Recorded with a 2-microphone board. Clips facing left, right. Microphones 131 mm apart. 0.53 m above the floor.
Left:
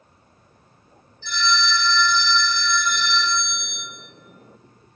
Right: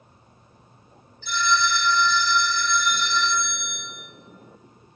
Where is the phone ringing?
70° right (ahead or behind), 1.6 m.